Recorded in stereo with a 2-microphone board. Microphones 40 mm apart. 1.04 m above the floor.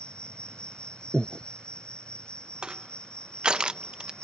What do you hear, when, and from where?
0.0 s an insect: 25° left (ahead or behind)
1.1 s breathing: 5° right (ahead or behind)
2.6 s crushing: 20° right (ahead or behind)